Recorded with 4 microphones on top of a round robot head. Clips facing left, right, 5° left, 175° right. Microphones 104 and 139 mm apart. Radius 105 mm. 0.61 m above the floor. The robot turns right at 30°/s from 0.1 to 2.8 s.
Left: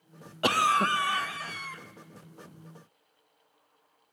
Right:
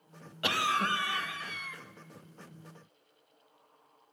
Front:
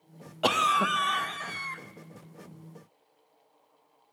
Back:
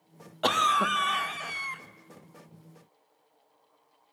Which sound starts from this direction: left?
A cough, at 0.4 s.